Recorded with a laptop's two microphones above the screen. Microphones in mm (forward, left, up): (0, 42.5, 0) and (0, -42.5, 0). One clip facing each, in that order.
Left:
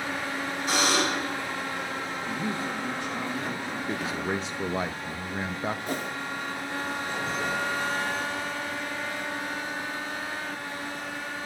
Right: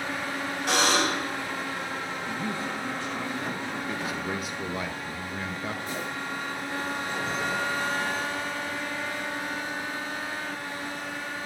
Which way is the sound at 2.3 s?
20° left (ahead or behind).